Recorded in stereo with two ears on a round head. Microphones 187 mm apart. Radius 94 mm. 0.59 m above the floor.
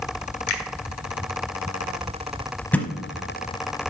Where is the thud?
5° left (ahead or behind), 0.6 m.